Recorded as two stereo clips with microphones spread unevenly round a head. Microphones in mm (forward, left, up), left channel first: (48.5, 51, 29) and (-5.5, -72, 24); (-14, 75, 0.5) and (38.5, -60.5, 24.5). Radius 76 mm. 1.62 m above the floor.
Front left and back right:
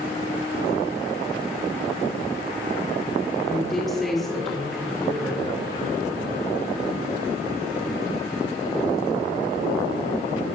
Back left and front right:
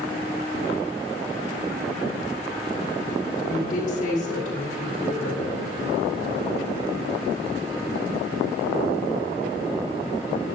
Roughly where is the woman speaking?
Behind left.